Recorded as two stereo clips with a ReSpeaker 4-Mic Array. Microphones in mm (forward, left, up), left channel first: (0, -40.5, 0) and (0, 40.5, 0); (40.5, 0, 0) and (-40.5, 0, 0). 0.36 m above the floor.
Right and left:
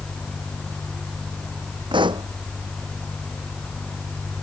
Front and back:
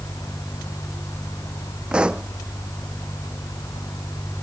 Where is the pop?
105° left.